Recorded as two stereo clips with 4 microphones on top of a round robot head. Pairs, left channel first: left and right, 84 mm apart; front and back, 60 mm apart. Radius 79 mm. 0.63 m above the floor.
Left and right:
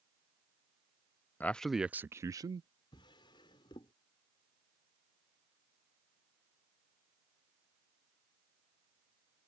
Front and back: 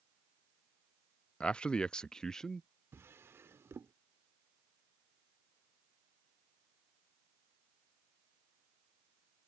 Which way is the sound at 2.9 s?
130° left.